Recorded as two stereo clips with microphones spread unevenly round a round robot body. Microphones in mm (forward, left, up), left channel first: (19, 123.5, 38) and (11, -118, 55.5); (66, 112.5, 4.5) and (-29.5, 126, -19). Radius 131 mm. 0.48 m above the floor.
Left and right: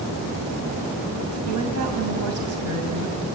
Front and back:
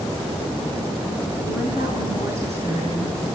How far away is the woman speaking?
About 4 m.